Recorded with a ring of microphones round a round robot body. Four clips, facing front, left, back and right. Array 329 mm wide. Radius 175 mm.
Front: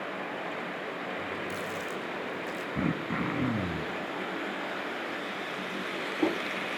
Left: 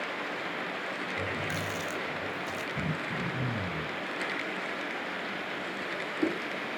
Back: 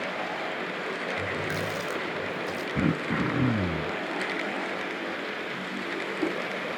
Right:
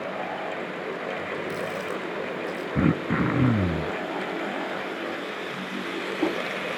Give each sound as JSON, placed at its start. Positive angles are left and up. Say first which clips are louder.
{"t": 1.2, "sound": "a running tap", "louder": "right 4 dB, back 4 dB", "azimuth_deg": 145, "distance_m": 3.0}
{"t": 2.8, "sound": "throat clearing", "louder": "right 15 dB, back 4 dB", "azimuth_deg": -105, "distance_m": 0.8}